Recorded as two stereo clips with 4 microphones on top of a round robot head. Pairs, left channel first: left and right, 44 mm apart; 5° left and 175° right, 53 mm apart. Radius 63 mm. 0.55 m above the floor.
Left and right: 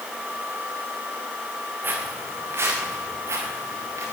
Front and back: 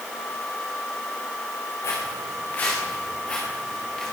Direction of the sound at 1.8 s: 45° right.